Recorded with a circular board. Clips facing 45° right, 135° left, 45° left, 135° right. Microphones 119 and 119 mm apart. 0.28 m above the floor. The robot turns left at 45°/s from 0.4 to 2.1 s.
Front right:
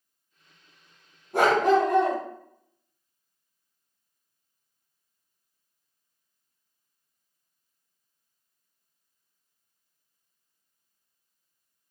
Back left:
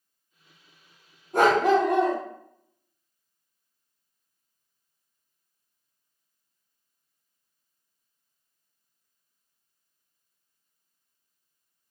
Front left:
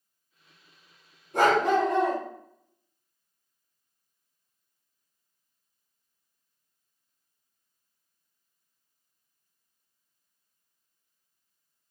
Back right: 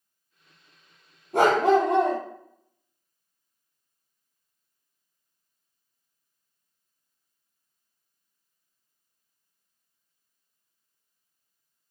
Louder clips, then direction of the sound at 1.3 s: Back left 1 dB, back right 3 dB; 130° right.